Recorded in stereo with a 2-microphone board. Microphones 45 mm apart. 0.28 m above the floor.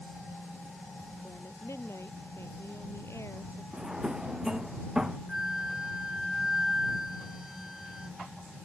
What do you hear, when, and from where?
1.2 s a woman speaking: 75° left (ahead or behind)
3.7 s a drawer: 15° right (ahead or behind)
5.3 s a flute: 10° right (ahead or behind)